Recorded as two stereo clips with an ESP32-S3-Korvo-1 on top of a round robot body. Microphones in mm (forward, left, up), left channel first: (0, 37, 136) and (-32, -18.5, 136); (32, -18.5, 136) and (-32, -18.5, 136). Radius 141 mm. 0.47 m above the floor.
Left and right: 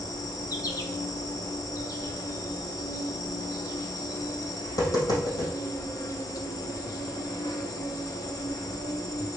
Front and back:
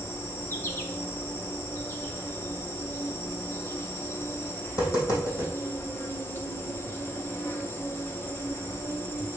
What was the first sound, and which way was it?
An insect, 50° left.